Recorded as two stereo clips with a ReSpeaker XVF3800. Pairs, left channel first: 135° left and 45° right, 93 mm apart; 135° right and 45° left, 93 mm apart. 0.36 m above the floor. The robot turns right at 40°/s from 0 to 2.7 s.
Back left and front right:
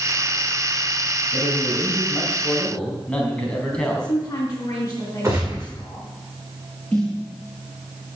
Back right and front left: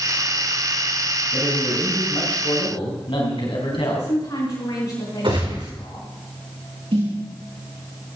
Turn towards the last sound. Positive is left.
turn(degrees=55)